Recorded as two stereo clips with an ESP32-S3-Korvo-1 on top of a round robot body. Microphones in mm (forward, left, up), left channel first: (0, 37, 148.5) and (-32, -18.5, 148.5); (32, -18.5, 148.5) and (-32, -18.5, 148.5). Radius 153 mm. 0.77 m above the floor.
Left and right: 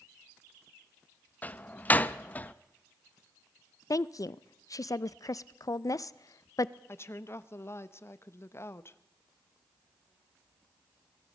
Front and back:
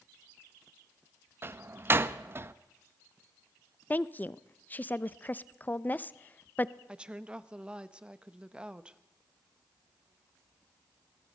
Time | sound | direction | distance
1.4 | a door slam | 125° left | 0.6 m
3.9 | a woman speaking | 55° left | 0.5 m
6.9 | a woman speaking | 105° left | 0.9 m